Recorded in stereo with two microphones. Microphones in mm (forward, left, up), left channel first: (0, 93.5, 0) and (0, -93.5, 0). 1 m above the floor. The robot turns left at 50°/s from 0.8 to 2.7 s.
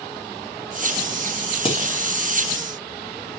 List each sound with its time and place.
1.6 s dishes clattering: 30° left (ahead or behind), 1.4 m; by 1.9 s 45° left (ahead or behind), 1.4 m